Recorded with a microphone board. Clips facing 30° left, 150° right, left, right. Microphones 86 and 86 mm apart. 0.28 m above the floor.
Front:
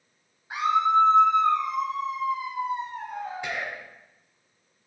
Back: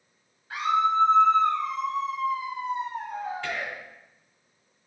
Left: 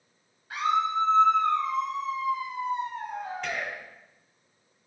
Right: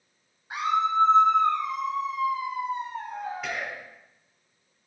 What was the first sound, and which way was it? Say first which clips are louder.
A scream: front 2 dB, right 1 dB; 30° right.